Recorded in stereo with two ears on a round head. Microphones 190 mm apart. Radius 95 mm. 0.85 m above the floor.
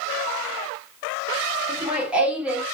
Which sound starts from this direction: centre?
Laughter, at 1.7 s.